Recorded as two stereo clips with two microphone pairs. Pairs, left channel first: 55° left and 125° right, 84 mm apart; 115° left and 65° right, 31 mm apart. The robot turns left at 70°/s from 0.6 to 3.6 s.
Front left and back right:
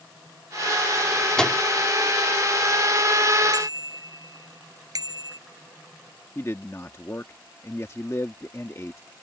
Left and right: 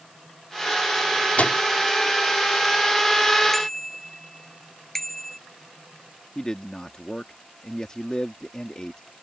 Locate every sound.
1.4 s a microwave: 135° left; by 1.6 s 115° left
3.5 s a bicycle bell: 160° right; by 5.4 s 165° right
6.3 s a man speaking: 75° left